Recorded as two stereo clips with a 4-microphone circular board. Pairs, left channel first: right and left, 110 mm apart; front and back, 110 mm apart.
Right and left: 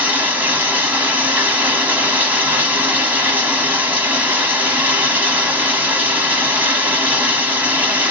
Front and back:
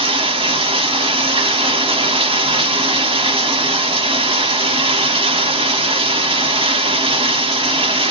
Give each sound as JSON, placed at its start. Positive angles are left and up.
{"t": 0.0, "sound": "running water", "azimuth_deg": 160, "distance_m": 1.1}